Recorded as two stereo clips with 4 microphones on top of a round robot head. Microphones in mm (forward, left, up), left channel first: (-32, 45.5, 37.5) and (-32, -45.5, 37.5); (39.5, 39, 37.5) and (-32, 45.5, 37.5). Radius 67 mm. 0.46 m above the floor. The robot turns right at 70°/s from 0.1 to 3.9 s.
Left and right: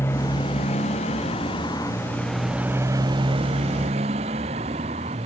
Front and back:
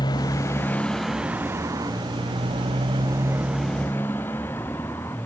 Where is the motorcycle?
20° left; by 5.3 s 75° right.